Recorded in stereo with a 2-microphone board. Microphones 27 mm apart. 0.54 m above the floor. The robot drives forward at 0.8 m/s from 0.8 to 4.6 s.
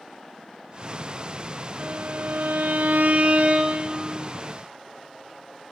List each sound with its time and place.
1.8 s a violin: 70° right (ahead or behind), 1.2 m; by 4.3 s 35° right (ahead or behind), 1.9 m